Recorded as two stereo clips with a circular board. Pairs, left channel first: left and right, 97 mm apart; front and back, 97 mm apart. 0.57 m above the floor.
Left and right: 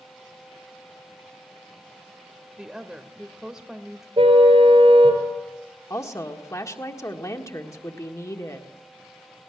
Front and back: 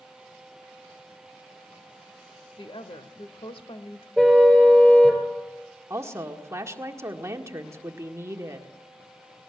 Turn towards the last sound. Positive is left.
turn(degrees=135)